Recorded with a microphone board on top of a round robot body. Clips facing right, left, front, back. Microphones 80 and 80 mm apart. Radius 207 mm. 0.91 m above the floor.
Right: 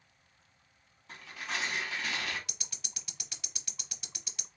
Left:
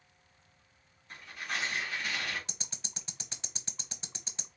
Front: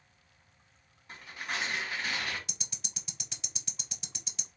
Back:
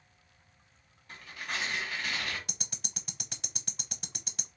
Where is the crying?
No crying in this recording.